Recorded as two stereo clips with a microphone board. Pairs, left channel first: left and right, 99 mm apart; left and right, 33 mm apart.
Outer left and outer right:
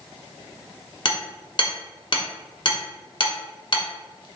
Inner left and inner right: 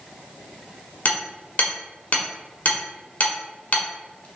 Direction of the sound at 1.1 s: 55° left (ahead or behind).